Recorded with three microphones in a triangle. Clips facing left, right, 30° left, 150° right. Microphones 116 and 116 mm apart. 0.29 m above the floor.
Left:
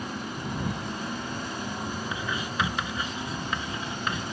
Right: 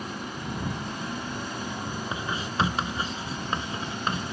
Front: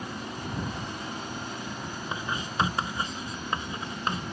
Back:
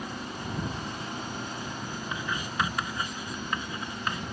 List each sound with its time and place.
2.1 s writing: 30° right